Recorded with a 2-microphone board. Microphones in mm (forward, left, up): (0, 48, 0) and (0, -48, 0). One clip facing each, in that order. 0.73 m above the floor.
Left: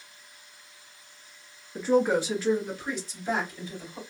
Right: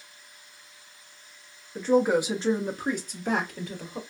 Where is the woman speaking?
10° left (ahead or behind), 0.5 m; by 4.0 s 65° right (ahead or behind), 1.1 m.